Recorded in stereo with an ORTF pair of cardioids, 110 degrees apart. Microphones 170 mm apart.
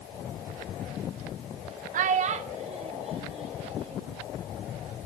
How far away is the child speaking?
About 0.7 m.